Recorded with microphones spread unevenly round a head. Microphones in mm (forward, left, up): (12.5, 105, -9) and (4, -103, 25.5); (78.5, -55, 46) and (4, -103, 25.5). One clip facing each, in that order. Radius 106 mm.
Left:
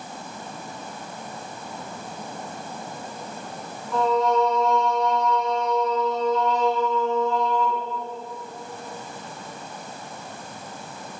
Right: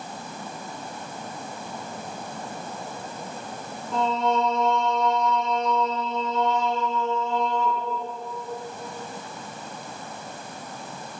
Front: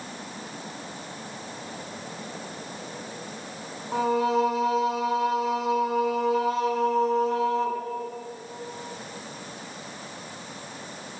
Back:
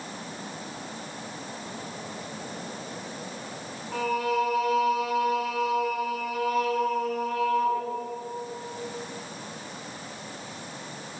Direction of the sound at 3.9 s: 30° right.